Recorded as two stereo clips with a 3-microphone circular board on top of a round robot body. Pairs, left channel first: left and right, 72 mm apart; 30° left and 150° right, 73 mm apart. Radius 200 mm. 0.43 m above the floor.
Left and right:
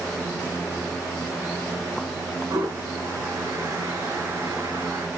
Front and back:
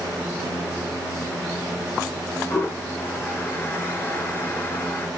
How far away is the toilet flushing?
About 1.6 m.